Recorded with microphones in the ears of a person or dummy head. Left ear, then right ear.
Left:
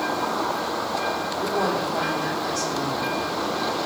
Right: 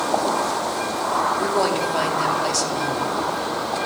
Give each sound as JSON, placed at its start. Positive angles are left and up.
{"t": 1.4, "sound": "a woman speaking", "side_deg": -70, "distance_m": 3.5}